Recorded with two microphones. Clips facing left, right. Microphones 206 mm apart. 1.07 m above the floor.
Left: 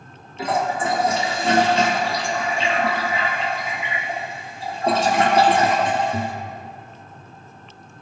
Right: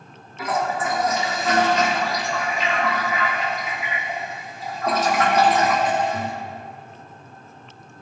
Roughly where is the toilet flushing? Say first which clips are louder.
Left 2 dB; left.